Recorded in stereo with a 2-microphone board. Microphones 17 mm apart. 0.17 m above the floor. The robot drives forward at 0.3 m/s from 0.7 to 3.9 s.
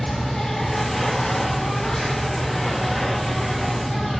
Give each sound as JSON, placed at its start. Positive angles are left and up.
{"t": 0.0, "sound": "an insect", "side_deg": 50, "distance_m": 1.6}